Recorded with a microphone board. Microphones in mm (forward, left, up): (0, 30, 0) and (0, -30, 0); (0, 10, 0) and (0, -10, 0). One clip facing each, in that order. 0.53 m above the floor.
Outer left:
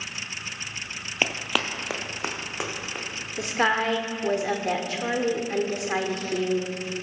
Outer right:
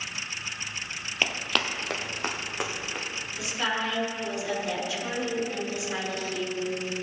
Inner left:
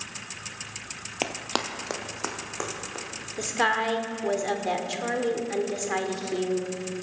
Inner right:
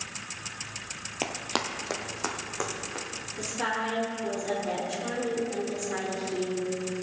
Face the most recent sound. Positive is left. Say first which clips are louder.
# outer left 6 dB, inner left 6 dB
turn(degrees=50)  # may be behind; listen again after turning